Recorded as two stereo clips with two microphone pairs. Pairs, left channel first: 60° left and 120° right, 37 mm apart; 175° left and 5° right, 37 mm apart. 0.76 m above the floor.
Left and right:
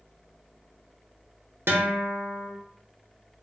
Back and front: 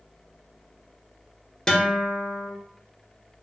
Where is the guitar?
110° right, 0.8 m.